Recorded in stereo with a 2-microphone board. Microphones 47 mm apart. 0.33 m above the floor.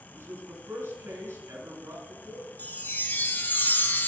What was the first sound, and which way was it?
A man speaking, 60° right (ahead or behind).